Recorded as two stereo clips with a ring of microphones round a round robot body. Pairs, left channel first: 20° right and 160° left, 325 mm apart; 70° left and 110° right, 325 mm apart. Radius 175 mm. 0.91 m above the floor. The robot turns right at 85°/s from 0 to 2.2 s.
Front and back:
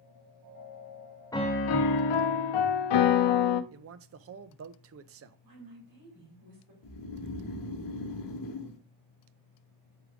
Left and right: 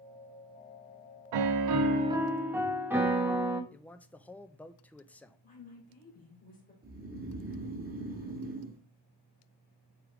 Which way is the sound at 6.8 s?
50° right.